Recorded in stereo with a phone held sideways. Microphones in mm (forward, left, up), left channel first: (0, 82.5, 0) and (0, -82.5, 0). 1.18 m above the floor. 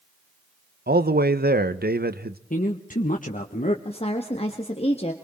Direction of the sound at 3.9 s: 40° left (ahead or behind).